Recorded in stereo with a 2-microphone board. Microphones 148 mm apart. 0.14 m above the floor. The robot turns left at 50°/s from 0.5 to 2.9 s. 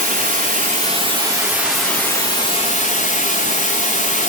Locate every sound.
0.0 s running water: 115° right, 1.9 m; by 4.3 s 125° left, 1.9 m